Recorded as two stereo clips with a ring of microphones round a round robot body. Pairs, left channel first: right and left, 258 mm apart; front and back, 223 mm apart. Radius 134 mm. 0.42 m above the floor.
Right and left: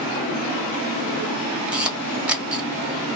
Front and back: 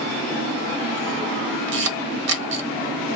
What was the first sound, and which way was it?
A camera shutter, 175° left.